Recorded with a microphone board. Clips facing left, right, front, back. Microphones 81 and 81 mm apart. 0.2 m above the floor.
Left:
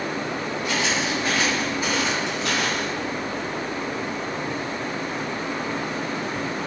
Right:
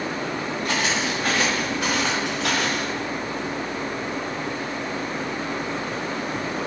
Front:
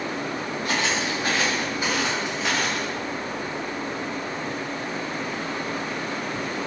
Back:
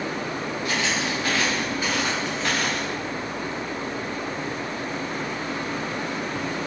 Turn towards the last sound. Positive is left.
turn(degrees=-90)